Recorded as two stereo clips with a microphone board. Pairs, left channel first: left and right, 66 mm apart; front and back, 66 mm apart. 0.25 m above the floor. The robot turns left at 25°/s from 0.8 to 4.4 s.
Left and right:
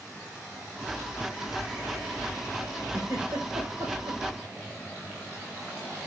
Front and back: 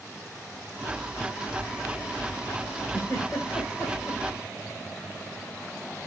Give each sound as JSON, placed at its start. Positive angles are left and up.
{"t": 2.9, "sound": "a giggle", "azimuth_deg": -45, "distance_m": 5.5}